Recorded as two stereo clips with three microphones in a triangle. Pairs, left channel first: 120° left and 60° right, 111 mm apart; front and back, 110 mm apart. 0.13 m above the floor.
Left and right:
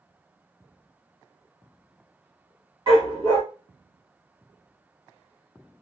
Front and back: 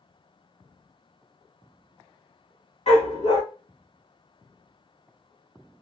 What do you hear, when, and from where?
2.9 s a dog barking: 20° right, 1.9 m